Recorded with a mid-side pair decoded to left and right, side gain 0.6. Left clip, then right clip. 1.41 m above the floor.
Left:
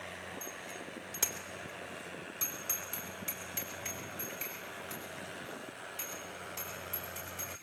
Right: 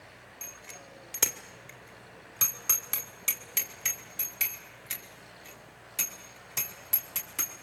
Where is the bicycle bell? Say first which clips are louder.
Left 2 dB; 25° right, 2.5 m; by 7.5 s 70° right, 8 m.